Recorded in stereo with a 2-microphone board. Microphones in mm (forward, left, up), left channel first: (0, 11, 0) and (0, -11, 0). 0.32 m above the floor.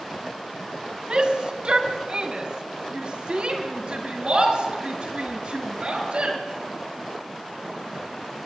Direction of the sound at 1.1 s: 45° right (ahead or behind).